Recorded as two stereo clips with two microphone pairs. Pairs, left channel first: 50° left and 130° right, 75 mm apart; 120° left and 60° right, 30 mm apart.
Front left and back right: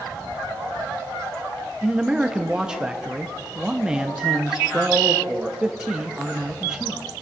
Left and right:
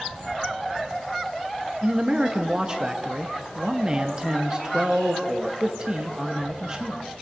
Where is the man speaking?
75° right, 0.5 m.